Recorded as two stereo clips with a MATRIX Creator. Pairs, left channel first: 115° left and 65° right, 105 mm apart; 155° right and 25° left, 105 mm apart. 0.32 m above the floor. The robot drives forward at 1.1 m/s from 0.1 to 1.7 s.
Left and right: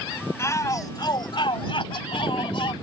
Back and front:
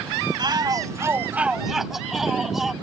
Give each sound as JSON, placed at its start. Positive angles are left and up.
{"t": 0.4, "sound": "a shout", "azimuth_deg": 55}